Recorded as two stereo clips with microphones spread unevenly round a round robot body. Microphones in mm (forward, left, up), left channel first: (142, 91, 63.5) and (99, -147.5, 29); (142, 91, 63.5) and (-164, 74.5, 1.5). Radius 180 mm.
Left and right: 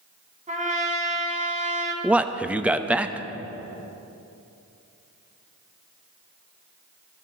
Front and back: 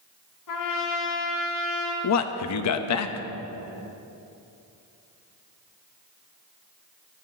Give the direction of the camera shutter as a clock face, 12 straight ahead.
No camera shutter in this recording.